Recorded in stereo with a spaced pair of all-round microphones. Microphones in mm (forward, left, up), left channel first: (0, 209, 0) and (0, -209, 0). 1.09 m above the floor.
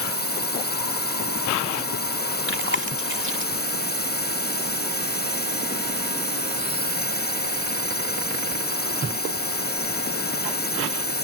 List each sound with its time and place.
0.0 s a drone: 25° left (ahead or behind)
2.5 s chewing: 30° right (ahead or behind)